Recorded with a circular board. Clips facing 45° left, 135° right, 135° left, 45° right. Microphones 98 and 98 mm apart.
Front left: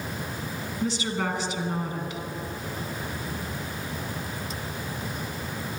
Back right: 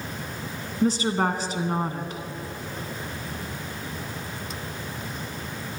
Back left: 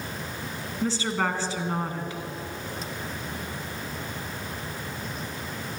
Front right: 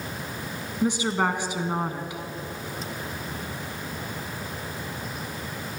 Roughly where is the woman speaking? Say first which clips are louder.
Back right 6 dB, front right 3 dB; behind right.